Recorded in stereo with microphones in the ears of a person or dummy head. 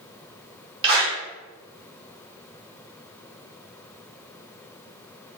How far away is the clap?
About 0.9 m.